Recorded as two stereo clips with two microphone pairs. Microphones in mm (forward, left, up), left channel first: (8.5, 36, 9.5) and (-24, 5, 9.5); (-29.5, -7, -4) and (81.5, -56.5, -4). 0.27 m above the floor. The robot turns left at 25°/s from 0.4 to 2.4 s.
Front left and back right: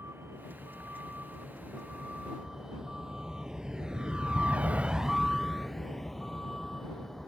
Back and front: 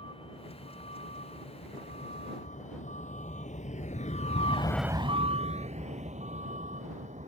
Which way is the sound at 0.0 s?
165° right.